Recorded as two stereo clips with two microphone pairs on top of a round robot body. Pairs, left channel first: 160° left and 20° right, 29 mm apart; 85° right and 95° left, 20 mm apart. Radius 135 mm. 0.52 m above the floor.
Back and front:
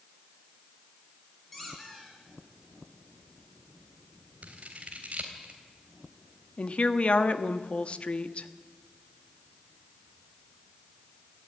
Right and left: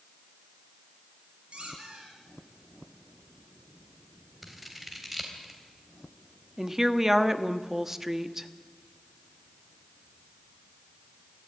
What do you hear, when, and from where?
1.5 s a squeak: 75° left, 5 m
4.4 s scissors: 15° left, 3.5 m
6.6 s a woman speaking: 150° left, 1.5 m